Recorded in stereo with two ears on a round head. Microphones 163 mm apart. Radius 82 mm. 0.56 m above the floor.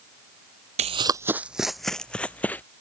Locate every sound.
0.8 s running footsteps: 40° right (ahead or behind); by 2.6 s 10° left (ahead or behind)